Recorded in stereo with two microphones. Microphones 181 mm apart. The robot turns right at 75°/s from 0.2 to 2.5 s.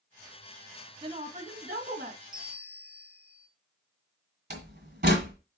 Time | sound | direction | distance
1.0 | a woman speaking | 150° right | 1.8 m
2.3 | a bell | 50° right (ahead or behind) | 1.5 m
4.5 | a door slam | 60° right (ahead or behind) | 1.7 m